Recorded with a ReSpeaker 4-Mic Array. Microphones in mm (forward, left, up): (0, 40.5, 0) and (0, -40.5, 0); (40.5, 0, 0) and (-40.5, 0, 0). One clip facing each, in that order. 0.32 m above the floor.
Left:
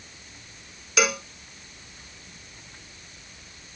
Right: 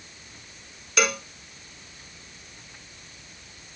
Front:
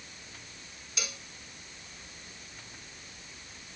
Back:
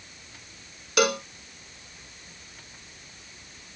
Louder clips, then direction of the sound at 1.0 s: Left 1 dB, back 20 dB; straight behind.